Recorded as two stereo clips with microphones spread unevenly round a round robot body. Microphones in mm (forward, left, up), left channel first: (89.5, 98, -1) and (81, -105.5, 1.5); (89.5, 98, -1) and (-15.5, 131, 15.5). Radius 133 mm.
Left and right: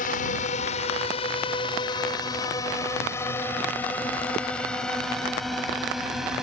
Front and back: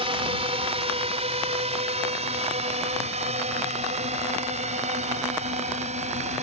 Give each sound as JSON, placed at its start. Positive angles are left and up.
{"t": 0.0, "sound": "a drone", "azimuth_deg": 145}